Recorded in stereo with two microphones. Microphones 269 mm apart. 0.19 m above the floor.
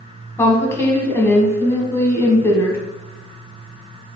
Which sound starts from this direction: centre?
A woman speaking, at 0.4 s.